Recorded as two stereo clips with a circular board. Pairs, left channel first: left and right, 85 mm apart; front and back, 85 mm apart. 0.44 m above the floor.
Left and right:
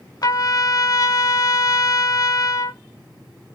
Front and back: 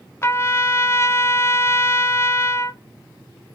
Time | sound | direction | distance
0.2 | a trumpet | 55° left | 0.5 m